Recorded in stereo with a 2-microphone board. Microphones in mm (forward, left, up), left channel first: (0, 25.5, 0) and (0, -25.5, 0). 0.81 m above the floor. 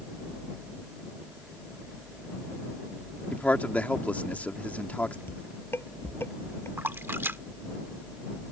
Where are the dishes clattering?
55° left (ahead or behind).